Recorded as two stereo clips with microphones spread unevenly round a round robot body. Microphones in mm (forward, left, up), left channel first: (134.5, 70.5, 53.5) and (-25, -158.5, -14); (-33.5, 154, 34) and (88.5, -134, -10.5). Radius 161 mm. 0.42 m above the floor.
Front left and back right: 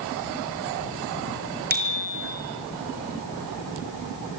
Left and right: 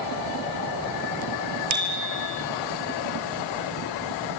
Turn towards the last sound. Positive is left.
turn(degrees=-70)